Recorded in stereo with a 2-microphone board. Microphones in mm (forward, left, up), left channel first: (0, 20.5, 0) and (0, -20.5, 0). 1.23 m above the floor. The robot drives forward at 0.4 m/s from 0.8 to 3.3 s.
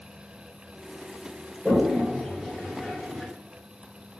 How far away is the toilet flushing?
About 1.4 m.